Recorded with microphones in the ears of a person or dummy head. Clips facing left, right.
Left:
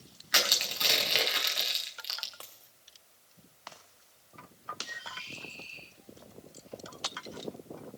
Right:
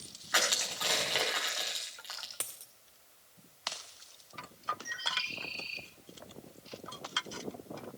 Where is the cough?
No cough in this recording.